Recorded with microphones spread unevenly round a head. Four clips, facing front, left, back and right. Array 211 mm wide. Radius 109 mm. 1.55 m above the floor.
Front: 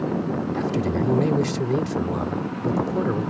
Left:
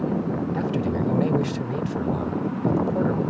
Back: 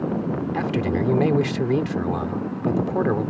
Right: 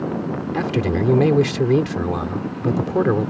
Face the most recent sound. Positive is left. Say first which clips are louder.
# right 7 dB, back 1 dB
turn(degrees=-105)